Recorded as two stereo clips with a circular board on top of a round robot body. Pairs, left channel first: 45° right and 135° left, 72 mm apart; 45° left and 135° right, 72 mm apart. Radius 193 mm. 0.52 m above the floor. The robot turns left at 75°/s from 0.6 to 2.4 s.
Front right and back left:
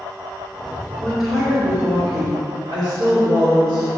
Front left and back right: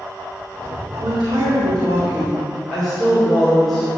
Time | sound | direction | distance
1.0 | a woman speaking | 120° right | 2.5 m